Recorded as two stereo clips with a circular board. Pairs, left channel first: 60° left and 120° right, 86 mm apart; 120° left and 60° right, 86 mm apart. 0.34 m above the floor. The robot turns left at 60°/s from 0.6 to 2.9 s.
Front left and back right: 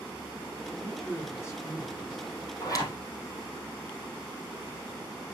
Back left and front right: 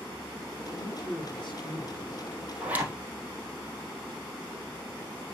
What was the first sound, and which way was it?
A man speaking, 165° left.